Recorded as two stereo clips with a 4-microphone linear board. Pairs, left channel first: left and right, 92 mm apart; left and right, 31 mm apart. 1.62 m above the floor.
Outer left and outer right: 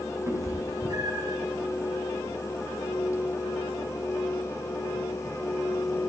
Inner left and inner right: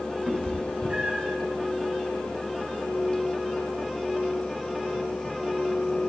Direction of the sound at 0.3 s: 35° right (ahead or behind).